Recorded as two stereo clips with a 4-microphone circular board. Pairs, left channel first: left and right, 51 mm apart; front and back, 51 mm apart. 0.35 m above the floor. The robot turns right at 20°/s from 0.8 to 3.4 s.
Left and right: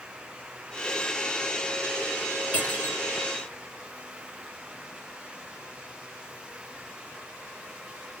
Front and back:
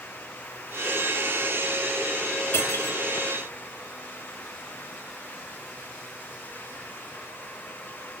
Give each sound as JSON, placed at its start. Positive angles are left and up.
{"t": 2.5, "sound": "cutlery clinking", "azimuth_deg": 25, "distance_m": 1.8}